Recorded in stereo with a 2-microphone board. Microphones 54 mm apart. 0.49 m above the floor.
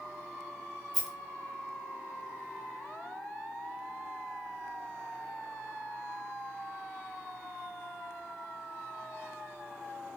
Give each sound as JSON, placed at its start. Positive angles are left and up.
{"t": 0.9, "sound": "a rattle", "side_deg": 0, "distance_m": 0.5}